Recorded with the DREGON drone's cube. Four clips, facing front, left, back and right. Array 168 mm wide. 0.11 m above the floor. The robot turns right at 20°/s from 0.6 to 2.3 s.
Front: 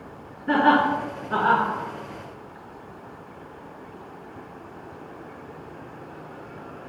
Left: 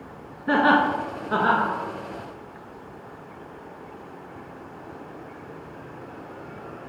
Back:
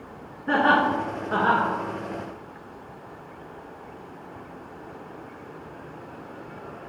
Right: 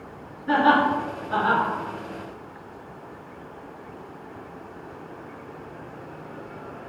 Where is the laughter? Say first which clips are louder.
Even, front 2 dB; 100° left, 1.3 m; by 1.7 s 120° left, 1.3 m.